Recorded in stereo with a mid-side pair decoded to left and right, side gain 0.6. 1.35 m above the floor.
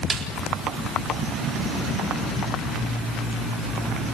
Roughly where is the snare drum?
Ahead right.